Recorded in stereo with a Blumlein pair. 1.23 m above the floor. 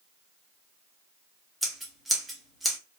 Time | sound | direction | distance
1.6 | scissors | 5° right | 1.1 m